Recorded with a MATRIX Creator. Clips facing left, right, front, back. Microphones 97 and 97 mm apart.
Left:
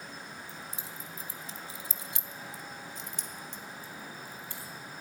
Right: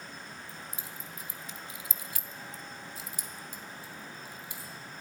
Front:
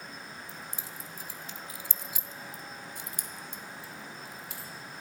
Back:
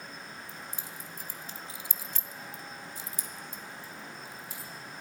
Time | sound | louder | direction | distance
0.5 | keys jangling | left 1 dB, even | 150° left | 1.4 m